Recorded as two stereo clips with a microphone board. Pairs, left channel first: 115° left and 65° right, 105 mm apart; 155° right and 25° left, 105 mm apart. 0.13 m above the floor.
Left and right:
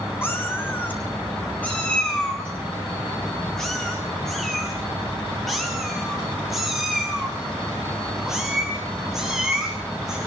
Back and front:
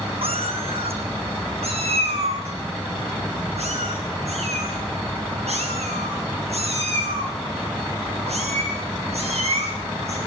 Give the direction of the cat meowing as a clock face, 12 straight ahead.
11 o'clock.